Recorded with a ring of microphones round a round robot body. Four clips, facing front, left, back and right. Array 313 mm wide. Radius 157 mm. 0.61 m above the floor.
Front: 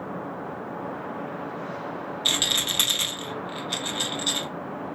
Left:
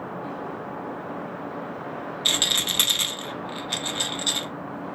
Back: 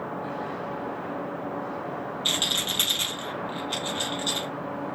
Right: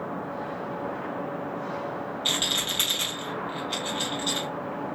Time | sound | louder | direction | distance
2.2 | a rattle | left 1 dB, front 1 dB | 60° left | 1.3 m